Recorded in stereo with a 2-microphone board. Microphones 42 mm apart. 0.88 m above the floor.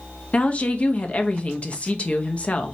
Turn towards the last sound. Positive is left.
turn(degrees=30)  # may be behind; listen again after turning